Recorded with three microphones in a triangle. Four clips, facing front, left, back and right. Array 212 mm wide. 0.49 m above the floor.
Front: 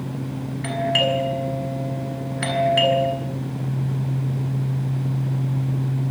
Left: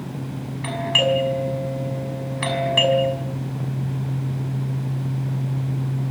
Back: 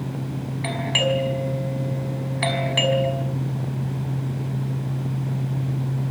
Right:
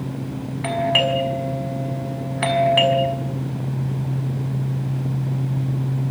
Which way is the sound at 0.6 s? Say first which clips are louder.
Right 1 dB, front 2 dB; 100° right.